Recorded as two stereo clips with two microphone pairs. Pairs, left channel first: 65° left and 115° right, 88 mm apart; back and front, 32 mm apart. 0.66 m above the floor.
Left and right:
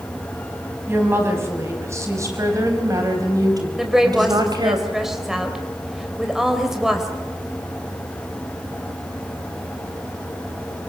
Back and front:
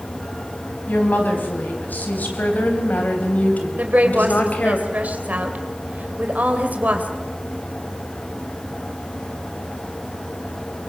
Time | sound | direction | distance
0.9 | a woman speaking | 175° right | 5.5 m
3.8 | a woman speaking | 25° right | 3 m